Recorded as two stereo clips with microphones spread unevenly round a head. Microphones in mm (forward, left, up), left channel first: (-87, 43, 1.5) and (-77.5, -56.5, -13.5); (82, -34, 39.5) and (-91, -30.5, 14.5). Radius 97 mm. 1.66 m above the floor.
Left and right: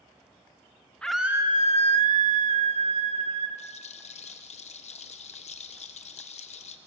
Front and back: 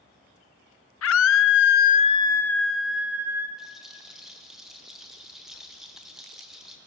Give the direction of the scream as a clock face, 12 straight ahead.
12 o'clock.